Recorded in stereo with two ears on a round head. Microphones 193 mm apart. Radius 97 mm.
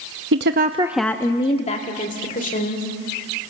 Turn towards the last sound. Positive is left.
turn(degrees=40)  # may be behind; listen again after turning